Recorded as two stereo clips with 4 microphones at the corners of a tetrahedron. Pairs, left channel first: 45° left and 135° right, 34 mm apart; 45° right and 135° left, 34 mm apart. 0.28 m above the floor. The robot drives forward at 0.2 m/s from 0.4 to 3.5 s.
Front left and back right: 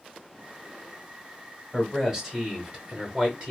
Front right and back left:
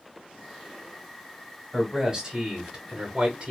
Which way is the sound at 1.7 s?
170° left.